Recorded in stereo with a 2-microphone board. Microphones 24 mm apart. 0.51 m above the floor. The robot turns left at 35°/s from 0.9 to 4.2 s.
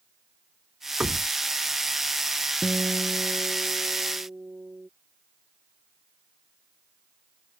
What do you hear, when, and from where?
1.0 s knocking: 75° right (ahead or behind); by 1.3 s 70° right (ahead or behind)
2.6 s a guitar: 45° right; by 4.9 s 100° right